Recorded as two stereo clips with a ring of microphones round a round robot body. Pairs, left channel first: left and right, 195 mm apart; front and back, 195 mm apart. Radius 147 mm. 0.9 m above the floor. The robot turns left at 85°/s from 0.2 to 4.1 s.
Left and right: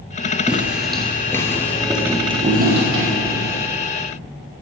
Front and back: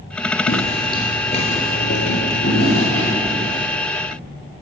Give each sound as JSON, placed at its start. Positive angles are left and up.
{"t": 0.5, "sound": "footsteps", "azimuth_deg": -10, "distance_m": 1.0}